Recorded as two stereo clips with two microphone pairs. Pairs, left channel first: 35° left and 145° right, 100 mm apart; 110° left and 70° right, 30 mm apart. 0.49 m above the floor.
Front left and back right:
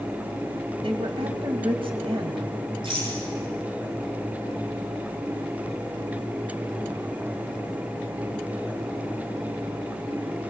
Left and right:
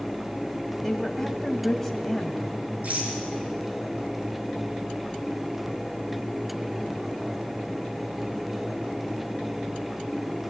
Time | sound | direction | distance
0.8 | a woman speaking | 160° right | 3 m
2.8 | a rattle | 105° right | 6.5 m